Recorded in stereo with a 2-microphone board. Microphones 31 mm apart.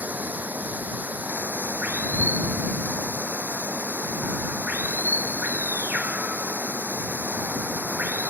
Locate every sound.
0.0 s running water: 70° right (ahead or behind)